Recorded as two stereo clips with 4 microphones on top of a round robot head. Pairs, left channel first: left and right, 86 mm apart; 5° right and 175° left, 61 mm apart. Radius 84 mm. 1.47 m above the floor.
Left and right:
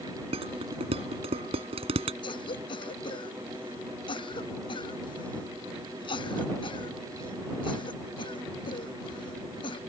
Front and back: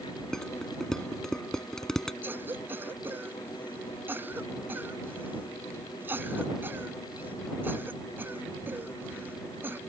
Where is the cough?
115° left.